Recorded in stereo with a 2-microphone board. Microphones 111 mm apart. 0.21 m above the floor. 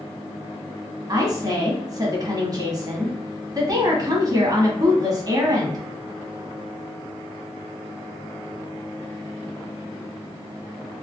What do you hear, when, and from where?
1.1 s a woman speaking: 35° right (ahead or behind), 1.2 m